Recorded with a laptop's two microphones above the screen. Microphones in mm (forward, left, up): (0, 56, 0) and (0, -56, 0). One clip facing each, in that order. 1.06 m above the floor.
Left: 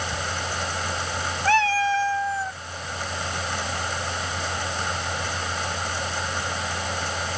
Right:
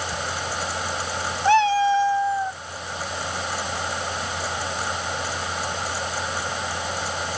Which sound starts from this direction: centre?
A fan, at 0.0 s.